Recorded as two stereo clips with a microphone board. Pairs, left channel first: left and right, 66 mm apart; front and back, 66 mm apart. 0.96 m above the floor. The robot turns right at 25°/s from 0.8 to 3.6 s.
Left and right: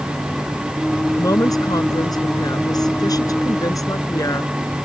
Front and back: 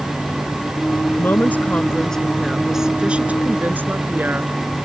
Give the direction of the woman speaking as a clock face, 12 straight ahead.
10 o'clock.